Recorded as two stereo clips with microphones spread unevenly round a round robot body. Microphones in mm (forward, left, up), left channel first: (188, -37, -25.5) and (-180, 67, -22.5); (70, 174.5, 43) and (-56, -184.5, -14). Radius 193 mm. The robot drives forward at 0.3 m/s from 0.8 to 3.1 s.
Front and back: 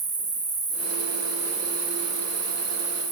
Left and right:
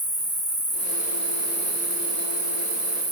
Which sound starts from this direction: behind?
An insect, at 0.0 s.